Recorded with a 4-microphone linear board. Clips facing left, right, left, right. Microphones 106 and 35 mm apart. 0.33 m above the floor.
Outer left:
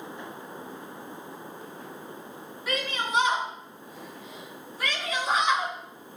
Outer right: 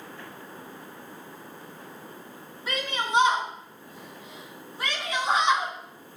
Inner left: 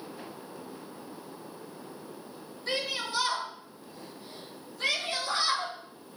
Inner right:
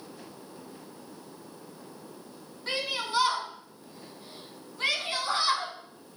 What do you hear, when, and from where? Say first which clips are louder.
2.7 s a shout: outer right 1 dB, inner right 1 dB; 25° right (ahead or behind), 4 m